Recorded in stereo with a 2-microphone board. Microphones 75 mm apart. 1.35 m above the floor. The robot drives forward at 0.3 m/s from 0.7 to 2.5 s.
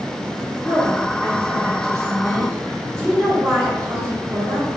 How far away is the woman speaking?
About 2.5 m.